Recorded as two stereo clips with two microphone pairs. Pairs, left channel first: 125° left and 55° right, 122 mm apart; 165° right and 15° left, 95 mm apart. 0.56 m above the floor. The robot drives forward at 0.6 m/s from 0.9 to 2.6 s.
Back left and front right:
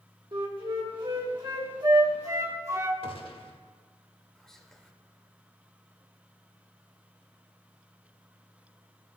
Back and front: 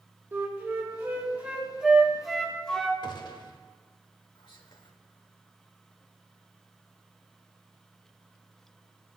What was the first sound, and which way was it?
A flute, 40° right.